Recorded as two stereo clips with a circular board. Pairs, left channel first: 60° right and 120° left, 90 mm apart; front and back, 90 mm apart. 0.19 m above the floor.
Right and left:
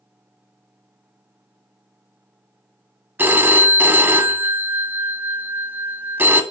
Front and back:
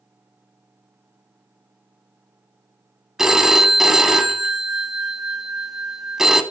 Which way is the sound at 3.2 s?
105° left.